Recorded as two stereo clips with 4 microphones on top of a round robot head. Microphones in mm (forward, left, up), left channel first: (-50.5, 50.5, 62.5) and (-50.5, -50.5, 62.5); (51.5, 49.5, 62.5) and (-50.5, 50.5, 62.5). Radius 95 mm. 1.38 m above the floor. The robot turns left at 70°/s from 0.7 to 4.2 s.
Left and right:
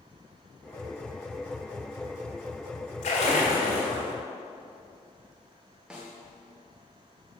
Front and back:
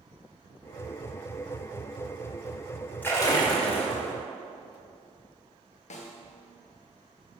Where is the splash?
70° left, 2.5 m; by 4.1 s 5° right, 2.5 m.